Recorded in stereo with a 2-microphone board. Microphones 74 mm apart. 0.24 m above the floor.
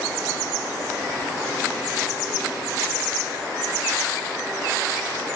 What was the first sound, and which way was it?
Only background noise.